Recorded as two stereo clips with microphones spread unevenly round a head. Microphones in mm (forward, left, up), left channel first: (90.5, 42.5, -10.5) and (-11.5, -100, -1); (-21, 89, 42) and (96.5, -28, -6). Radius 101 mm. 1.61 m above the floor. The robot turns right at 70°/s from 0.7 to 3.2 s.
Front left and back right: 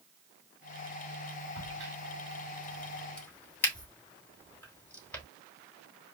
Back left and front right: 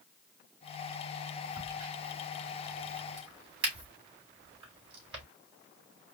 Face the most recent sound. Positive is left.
turn(degrees=-25)